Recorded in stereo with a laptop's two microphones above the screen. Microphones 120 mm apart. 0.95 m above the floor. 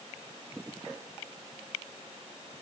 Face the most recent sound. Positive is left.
No sound to turn to.